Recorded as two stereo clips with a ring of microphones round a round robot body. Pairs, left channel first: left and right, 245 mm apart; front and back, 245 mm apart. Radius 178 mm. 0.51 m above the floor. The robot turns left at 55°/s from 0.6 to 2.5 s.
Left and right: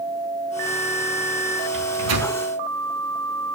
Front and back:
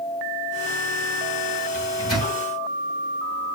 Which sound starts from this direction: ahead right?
A microwave, at 1.7 s.